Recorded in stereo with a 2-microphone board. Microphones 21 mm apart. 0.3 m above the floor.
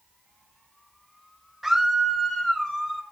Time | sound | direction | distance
1.6 | a scream | 5° right (ahead or behind) | 0.9 m